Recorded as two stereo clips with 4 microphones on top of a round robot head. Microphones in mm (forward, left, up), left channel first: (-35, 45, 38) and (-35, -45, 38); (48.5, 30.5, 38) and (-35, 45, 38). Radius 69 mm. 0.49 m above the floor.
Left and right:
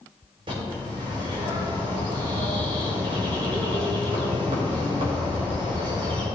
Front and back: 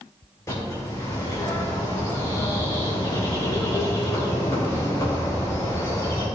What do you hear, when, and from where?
0.5 s a bird: 65° right, 3 m